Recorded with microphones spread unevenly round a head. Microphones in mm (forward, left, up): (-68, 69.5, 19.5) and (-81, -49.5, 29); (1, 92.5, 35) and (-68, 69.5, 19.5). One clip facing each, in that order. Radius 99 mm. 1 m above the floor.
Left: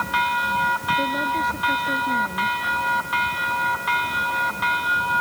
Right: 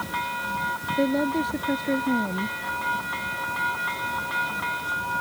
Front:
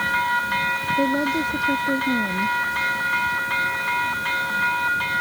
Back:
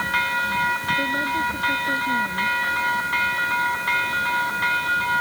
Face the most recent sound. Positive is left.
turn(degrees=-35)